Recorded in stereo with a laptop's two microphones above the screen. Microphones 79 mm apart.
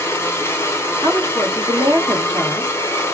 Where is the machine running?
30° left (ahead or behind), 0.7 m.